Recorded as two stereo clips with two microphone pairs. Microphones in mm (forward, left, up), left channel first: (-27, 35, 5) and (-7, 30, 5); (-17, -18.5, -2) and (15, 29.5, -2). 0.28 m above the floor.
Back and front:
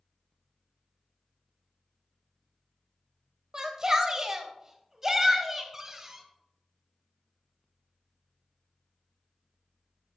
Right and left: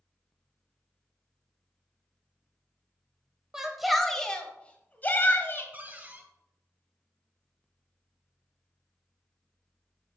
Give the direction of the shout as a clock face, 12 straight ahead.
12 o'clock.